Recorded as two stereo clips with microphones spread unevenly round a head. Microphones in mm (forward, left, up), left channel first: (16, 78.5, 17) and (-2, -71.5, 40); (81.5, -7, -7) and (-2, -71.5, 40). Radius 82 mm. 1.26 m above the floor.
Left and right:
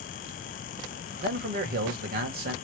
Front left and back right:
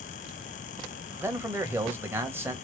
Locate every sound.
1.2 s a man speaking: 65° right, 1.3 m